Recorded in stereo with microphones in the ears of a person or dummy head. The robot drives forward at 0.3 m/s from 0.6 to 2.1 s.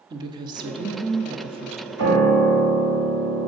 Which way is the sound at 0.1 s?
20° right (ahead or behind).